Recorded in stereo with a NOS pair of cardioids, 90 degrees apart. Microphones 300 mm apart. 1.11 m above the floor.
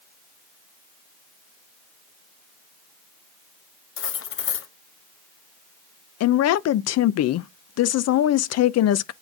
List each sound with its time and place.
4.0 s cutlery clinking: 45° left, 0.8 m
6.2 s a woman speaking: 55° left, 0.5 m